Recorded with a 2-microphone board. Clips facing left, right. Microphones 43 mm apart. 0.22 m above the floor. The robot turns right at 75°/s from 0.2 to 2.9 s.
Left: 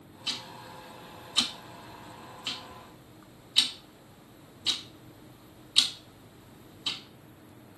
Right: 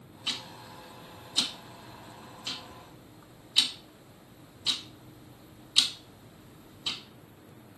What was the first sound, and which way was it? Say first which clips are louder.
Ticking: right 1 dB; 20° right (ahead or behind).